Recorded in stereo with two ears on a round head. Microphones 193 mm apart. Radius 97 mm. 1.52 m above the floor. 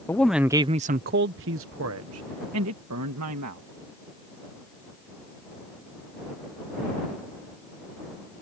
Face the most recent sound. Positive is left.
turn(degrees=-85)